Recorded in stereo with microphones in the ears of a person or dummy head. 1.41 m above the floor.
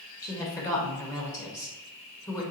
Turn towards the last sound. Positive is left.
turn(degrees=15)  # may be behind; listen again after turning